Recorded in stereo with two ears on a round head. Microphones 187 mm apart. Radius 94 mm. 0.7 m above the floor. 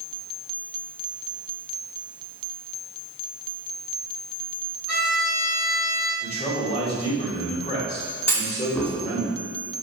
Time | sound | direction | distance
4.9 | a violin | 65° left (ahead or behind) | 2.5 m
6.2 | a man speaking | 30° left (ahead or behind) | 2.5 m
8.3 | a clunk | 15° left (ahead or behind) | 2 m